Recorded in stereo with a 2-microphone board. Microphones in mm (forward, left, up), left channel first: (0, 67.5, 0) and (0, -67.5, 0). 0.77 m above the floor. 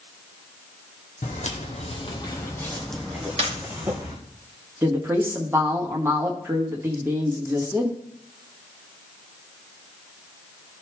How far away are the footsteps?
About 1.7 m.